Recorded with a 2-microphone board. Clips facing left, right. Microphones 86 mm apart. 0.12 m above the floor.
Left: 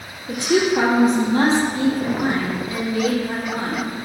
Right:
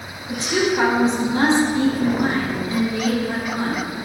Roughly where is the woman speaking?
Left.